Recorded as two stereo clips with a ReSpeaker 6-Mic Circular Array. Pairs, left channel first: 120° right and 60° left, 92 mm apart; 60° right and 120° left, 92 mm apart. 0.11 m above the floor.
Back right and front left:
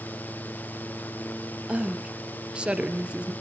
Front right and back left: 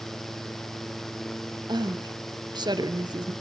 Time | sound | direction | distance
1.7 | a woman speaking | 135° left | 1.6 m